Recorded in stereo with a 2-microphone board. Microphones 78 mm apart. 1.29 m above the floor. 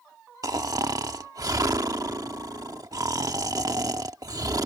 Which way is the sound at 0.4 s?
55° right (ahead or behind).